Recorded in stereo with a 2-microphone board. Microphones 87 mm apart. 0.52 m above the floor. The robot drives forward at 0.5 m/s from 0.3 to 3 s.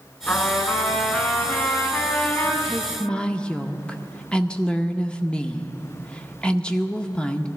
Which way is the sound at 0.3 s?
30° left (ahead or behind).